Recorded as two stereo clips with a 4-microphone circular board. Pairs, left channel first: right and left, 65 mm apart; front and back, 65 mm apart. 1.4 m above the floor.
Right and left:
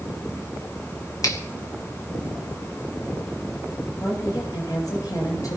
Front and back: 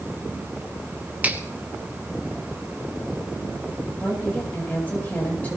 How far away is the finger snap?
About 1.9 m.